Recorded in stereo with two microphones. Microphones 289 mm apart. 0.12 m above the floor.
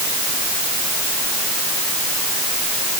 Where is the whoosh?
No whoosh in this recording.